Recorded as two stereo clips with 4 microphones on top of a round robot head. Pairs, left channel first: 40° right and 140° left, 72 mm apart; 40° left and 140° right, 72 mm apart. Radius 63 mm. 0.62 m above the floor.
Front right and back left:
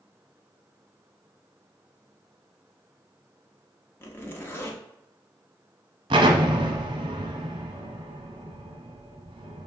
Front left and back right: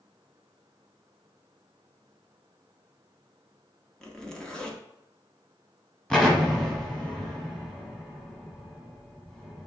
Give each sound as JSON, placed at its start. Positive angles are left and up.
{"t": 4.0, "sound": "a zipper", "azimuth_deg": -30, "distance_m": 1.2}
{"t": 6.1, "sound": "an explosion", "azimuth_deg": 120, "distance_m": 0.8}